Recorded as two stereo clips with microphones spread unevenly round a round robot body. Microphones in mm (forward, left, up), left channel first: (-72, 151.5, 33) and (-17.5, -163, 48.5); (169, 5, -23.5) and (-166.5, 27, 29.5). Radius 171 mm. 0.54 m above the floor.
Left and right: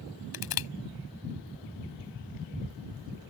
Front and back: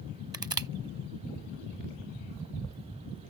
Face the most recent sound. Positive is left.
turn(degrees=95)